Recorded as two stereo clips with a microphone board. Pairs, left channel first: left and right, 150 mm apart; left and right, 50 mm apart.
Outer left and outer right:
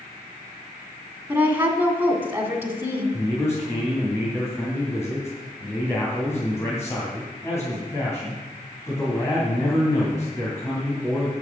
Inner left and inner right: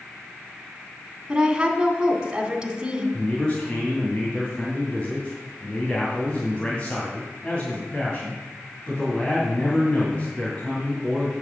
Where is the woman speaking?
15° right (ahead or behind), 2 m.